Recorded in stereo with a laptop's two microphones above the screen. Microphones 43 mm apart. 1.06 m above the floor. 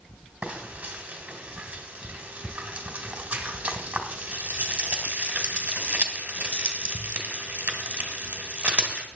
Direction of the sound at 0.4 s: 30° right (ahead or behind).